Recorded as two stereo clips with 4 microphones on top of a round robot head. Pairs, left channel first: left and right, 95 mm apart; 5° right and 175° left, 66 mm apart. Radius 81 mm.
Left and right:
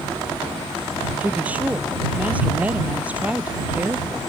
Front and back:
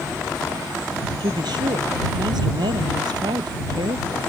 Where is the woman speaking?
165° right.